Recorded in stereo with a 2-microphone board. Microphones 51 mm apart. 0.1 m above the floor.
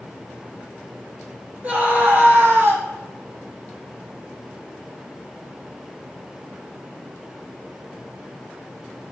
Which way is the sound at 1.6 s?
30° right (ahead or behind).